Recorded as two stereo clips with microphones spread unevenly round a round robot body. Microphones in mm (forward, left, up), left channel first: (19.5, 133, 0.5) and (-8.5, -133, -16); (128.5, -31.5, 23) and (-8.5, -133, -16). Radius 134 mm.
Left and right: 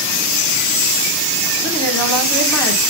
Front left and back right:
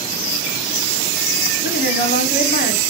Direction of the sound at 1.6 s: 5° right.